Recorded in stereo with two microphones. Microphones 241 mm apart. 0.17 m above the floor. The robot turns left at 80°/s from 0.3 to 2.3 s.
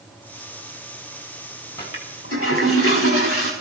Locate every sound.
1.8 s a toilet flushing: 165° left, 6.5 m; by 3.5 s 125° left, 6.5 m